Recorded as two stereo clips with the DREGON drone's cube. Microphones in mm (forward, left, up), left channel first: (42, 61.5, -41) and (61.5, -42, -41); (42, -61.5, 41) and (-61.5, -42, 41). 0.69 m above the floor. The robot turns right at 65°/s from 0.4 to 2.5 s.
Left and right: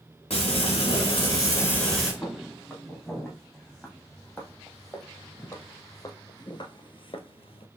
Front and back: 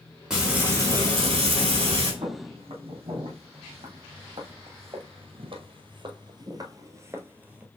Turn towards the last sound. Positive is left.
turn(degrees=95)